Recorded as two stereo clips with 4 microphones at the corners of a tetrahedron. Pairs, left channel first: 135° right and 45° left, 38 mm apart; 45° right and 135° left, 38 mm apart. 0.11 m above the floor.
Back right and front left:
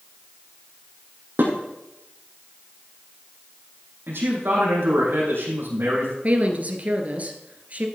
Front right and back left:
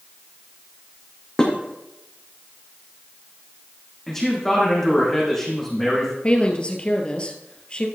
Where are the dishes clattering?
30° left, 4 m.